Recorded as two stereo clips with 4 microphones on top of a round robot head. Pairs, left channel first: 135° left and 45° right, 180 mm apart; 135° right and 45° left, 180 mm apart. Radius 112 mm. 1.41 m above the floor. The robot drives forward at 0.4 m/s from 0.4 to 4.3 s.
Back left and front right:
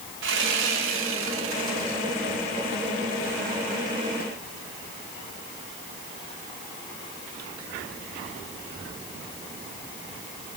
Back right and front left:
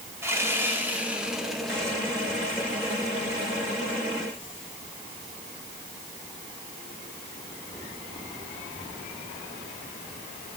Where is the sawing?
30° right, 1.5 m; by 2.0 s 55° right, 1.1 m.